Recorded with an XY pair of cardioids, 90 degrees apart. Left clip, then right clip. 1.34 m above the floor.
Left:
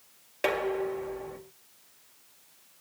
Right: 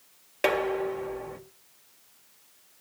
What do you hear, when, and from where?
0.4 s dishes clattering: 25° right, 1.6 m